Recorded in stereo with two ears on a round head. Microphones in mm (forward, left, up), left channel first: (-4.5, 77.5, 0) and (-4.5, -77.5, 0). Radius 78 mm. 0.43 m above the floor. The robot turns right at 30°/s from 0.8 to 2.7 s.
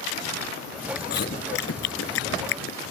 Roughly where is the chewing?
Left.